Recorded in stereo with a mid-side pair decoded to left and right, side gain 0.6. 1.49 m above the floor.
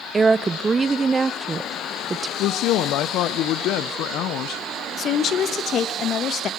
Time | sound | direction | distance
0.1 | a woman speaking | 25° right | 0.8 m
2.4 | a woman speaking | 65° left | 0.8 m
5.0 | a woman speaking | 45° left | 1.3 m